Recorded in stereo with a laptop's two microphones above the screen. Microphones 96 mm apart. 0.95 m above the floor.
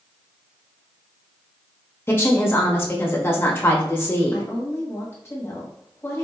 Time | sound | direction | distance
2.1 | a woman speaking | 25° left (ahead or behind) | 1.0 m
4.3 | a woman speaking | 25° left (ahead or behind) | 1.2 m